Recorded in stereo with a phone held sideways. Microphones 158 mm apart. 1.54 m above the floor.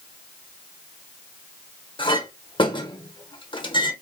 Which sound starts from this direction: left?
A clink, at 2.0 s.